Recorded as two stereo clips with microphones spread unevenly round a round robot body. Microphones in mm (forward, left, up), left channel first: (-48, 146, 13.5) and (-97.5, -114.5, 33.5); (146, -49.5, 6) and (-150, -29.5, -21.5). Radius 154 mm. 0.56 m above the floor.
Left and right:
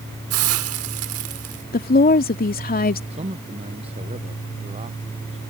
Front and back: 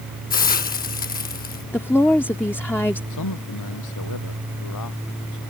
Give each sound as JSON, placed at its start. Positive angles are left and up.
{"t": 0.3, "sound": "a hiss", "azimuth_deg": -65}
{"t": 1.7, "sound": "a woman speaking", "azimuth_deg": 85}
{"t": 3.1, "sound": "a man speaking", "azimuth_deg": -30}